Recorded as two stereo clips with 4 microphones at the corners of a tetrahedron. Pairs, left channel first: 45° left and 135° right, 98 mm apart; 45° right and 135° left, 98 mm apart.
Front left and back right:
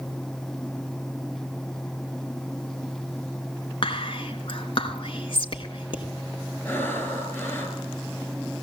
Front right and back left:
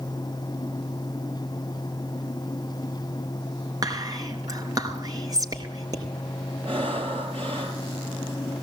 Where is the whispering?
80° left, 4 m.